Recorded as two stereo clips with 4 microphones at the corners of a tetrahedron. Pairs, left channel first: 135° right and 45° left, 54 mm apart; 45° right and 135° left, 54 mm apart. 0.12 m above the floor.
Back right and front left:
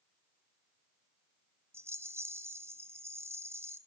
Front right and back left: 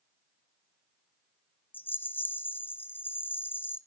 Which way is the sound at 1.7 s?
5° left.